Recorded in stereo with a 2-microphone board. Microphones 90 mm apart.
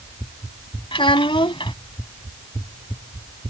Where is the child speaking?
75° left (ahead or behind).